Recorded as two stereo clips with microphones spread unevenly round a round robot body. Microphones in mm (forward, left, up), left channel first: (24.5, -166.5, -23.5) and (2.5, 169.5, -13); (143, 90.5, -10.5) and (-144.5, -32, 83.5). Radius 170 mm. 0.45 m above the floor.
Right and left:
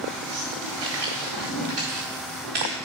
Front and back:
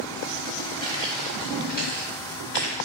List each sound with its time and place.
0.8 s footsteps: 105° left, 2.0 m; by 2.8 s 75° left, 3 m